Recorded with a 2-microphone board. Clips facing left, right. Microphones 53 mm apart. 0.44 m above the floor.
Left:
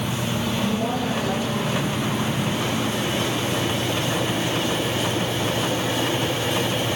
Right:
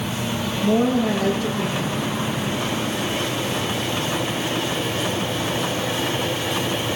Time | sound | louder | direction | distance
0.6 | a woman speaking | right 10 dB | 80° right | 9.5 m